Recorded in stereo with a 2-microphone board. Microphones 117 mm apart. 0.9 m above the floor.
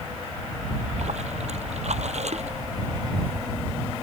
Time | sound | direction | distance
0.7 | a splash | 70° right (ahead or behind) | ?